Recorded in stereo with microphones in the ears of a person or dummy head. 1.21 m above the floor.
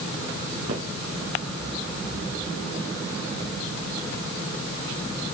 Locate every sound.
0.7 s footsteps: 45° right (ahead or behind), 2.5 m